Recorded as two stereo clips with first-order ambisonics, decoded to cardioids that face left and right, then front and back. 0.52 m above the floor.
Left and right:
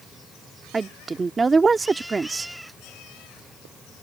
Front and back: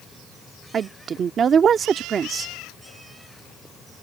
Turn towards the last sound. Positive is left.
turn(degrees=-150)